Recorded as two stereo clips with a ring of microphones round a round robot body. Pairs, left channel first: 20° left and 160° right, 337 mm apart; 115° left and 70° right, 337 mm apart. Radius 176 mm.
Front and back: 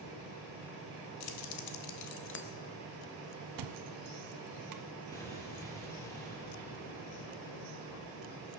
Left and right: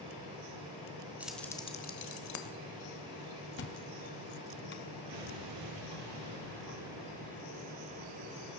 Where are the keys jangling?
20° left, 1.3 m; by 2.5 s 85° left, 1.1 m.